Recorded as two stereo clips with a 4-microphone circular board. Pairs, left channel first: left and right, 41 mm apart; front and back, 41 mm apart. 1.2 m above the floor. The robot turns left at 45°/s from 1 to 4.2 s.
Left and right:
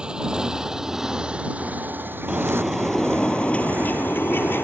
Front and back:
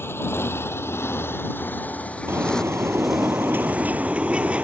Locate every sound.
0.0 s a motorcycle: 20° right; by 4.7 s 135° right
2.3 s a bird: 155° right; by 4.7 s 120° left